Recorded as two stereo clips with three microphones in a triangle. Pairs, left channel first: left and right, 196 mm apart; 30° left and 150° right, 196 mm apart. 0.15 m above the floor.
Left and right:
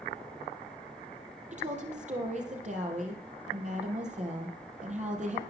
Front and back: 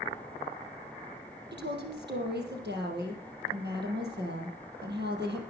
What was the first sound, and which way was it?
A woman speaking, 135° right.